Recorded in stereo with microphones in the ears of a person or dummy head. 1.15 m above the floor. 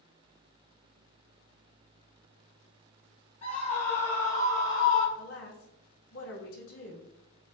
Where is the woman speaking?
80° left, 2 m.